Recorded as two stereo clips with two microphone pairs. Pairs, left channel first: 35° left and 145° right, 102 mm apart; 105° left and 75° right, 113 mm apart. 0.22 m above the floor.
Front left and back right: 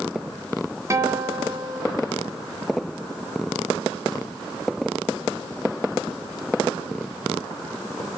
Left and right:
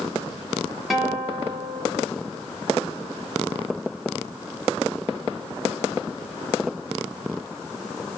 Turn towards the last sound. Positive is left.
turn(degrees=-160)